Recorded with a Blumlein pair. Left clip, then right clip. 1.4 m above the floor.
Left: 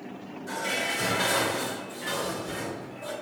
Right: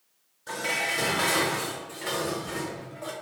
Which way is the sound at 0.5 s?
20° right.